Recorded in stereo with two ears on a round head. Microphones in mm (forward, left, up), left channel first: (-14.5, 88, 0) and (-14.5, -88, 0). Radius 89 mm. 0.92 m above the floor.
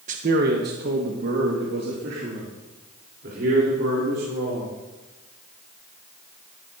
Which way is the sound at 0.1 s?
40° right (ahead or behind).